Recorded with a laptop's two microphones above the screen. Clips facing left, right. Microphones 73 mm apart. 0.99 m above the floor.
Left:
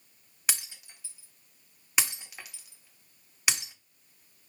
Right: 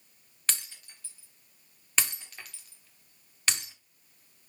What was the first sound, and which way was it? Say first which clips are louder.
Breaking glass: left 1 dB; 15° left (ahead or behind).